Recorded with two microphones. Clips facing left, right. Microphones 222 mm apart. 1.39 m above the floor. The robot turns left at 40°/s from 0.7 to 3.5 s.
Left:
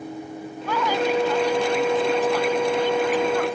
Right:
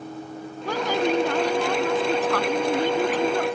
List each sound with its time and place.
0.7 s a woman speaking: 40° right; by 3.6 s 150° right